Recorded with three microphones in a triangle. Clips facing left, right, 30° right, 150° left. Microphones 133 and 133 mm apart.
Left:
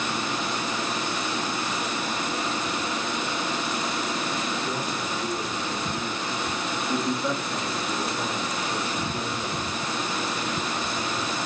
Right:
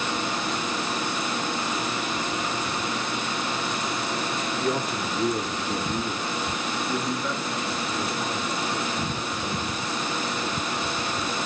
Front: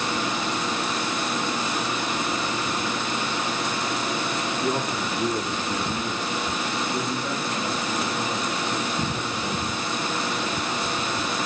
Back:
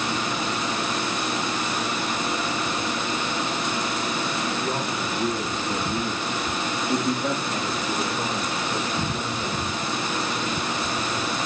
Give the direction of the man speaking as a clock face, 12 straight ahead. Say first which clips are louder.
Right 3 dB, front 1 dB; 4 o'clock.